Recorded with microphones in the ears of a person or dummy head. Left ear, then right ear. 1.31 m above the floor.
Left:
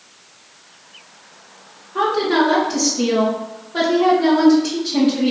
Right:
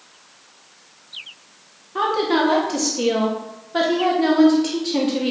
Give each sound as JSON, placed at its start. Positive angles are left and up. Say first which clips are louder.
{"t": 1.9, "sound": "a woman speaking", "louder": "left 2 dB", "side_deg": -30, "distance_m": 1.3}